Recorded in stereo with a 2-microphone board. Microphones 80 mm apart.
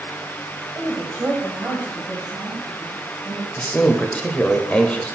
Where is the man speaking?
15° left (ahead or behind), 0.9 m.